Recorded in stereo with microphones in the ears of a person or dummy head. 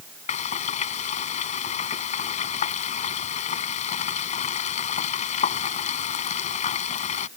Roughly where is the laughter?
No laughter in this recording.